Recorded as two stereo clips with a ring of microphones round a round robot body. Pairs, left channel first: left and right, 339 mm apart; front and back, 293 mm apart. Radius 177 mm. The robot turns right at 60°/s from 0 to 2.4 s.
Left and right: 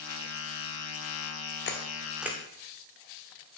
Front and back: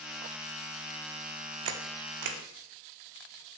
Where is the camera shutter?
150° left, 0.6 m; by 2.4 s 165° right, 0.6 m.